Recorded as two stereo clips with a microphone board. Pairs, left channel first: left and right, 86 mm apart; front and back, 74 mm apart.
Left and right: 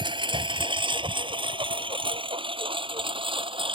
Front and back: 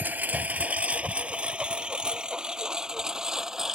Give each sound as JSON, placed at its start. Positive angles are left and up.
{"t": 0.0, "sound": "a lawn mower", "azimuth_deg": -115}